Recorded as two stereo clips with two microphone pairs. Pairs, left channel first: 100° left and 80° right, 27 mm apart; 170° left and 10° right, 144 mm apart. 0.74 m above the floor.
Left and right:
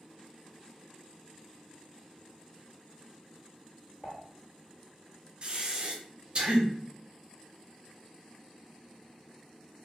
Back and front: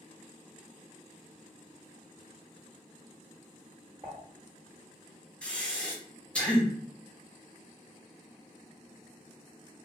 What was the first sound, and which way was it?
Dishes clattering, 45° left.